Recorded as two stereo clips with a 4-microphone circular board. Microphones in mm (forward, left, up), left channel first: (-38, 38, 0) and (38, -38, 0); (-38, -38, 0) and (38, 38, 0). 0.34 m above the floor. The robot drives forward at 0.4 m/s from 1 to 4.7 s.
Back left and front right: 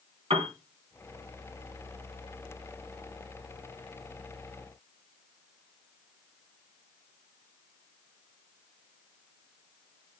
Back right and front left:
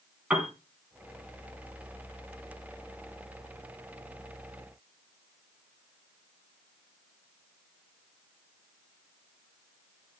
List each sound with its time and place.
0.3 s a piano: 35° right, 3 m